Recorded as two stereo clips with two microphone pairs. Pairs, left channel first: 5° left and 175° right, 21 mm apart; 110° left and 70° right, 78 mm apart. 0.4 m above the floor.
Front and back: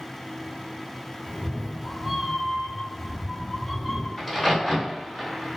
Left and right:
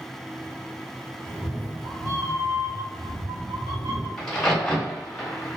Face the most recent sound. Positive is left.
turn(degrees=45)